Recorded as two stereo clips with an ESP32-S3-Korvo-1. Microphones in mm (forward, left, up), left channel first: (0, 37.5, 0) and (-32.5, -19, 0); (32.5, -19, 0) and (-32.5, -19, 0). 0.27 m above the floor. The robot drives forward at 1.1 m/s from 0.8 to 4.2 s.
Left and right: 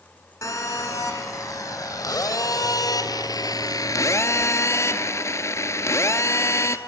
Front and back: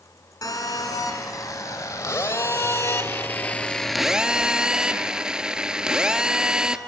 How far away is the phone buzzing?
About 3.5 m.